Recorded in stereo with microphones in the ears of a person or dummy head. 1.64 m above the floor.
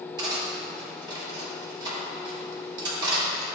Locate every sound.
0.2 s cutlery clinking: 30° right (ahead or behind), 2.5 m